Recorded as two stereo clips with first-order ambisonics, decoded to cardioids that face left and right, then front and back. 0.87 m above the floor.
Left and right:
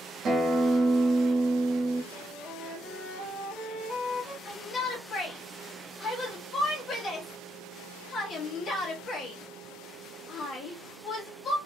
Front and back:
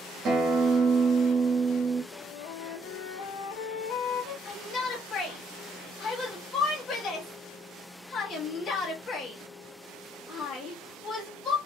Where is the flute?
Straight ahead, 0.7 m.